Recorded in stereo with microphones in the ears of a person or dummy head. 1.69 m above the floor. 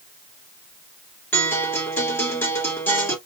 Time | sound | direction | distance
1.3 | a guitar | 15° left (ahead or behind) | 2.5 m